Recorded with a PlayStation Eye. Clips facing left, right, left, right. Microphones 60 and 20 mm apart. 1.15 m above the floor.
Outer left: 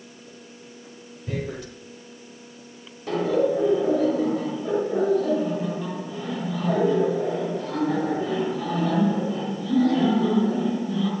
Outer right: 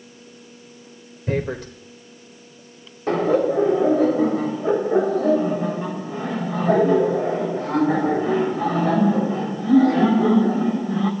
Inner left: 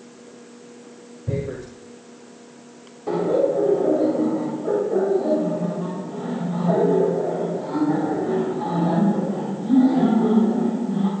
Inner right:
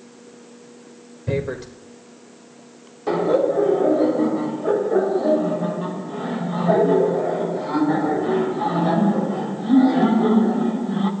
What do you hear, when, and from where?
1.3 s tearing paper: 55° right (ahead or behind), 1.7 m
3.1 s laughter: 45° right (ahead or behind), 3 m